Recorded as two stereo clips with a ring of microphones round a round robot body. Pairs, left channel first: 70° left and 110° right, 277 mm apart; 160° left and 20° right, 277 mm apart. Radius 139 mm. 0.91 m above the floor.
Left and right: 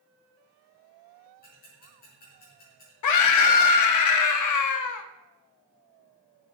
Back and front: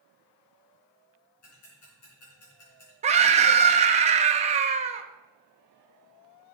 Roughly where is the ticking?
Behind left.